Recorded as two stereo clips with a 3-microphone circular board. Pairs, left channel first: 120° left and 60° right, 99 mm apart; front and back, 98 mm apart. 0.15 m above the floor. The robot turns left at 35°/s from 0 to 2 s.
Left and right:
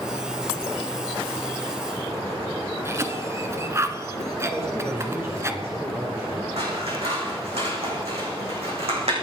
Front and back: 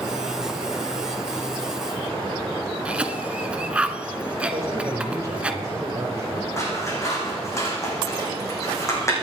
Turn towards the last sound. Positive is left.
turn(degrees=-60)